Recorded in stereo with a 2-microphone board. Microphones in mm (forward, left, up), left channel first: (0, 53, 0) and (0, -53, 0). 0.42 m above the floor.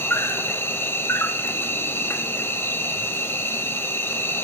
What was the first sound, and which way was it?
An insect, 20° left (ahead or behind).